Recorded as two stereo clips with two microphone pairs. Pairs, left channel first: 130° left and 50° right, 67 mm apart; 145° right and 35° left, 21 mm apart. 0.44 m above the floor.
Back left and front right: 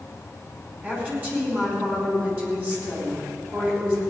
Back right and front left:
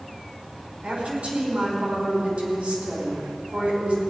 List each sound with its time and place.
0.8 s a woman speaking: 10° left, 4.5 m